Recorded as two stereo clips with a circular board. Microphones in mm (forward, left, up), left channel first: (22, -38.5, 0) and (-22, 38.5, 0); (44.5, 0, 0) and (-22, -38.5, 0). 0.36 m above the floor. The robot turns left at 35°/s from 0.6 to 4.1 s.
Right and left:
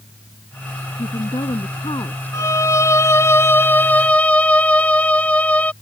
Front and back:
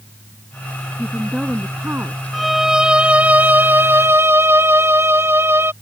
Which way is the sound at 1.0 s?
55° right.